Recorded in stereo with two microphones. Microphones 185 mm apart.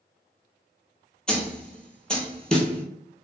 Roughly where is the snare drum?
Centre.